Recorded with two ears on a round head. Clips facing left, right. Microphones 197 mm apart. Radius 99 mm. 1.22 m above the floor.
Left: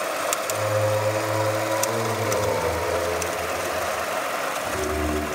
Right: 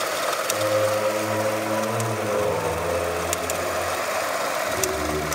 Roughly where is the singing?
Left.